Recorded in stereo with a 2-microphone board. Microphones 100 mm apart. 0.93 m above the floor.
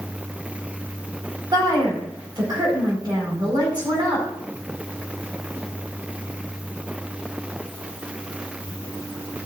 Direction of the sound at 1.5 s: 45° right (ahead or behind).